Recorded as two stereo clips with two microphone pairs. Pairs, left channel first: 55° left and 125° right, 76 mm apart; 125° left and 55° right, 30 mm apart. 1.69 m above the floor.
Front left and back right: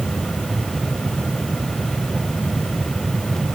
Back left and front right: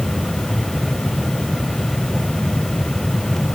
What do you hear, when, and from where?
Only background noise.